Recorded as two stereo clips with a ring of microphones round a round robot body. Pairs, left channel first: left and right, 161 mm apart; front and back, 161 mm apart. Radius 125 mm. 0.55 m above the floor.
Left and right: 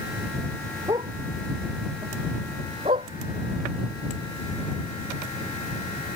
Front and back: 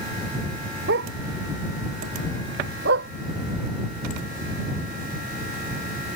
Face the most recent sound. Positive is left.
turn(degrees=-160)